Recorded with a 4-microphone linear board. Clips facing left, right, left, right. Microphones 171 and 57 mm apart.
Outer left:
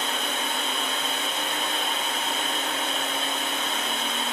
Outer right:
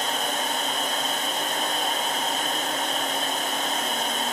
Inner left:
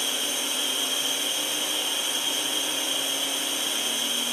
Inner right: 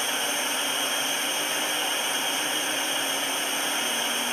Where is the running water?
45° right (ahead or behind), 2 m.